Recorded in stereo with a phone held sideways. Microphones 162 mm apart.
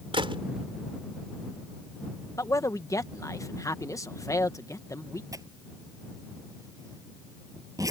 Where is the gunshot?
35° right (ahead or behind).